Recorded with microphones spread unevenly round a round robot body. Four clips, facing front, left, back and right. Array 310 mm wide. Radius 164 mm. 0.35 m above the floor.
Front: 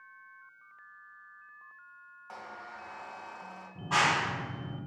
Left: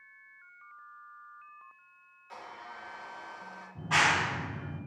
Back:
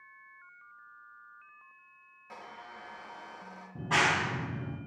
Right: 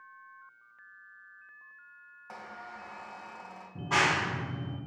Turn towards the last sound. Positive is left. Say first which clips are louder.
# even, even
turn(degrees=-150)